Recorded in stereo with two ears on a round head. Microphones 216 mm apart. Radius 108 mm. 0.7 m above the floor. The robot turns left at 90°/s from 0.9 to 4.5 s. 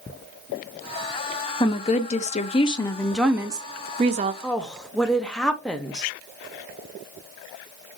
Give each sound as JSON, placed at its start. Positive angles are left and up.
{"t": 1.6, "sound": "a woman speaking", "side_deg": 15, "distance_m": 0.5}
{"t": 4.4, "sound": "a woman speaking", "side_deg": 0, "distance_m": 0.6}